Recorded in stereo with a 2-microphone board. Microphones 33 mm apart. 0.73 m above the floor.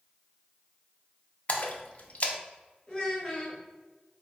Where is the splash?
45° left (ahead or behind), 0.5 m.